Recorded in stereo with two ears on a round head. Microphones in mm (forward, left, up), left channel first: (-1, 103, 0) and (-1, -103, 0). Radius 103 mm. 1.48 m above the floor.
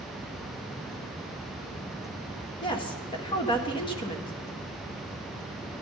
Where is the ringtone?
No ringtone in this recording.